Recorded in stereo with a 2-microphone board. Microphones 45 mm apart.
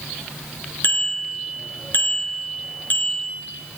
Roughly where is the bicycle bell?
Left.